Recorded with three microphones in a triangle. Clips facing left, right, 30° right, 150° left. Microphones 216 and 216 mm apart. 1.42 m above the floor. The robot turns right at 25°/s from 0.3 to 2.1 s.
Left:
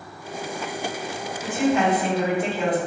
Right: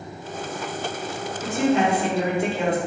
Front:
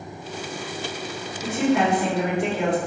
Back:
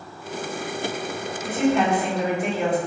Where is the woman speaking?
40° right, 1.1 m; by 2.8 s 25° right, 1.1 m.